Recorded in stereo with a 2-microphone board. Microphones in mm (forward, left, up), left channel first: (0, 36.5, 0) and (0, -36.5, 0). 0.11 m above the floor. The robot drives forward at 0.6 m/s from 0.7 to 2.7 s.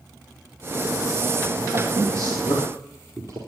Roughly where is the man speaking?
Right.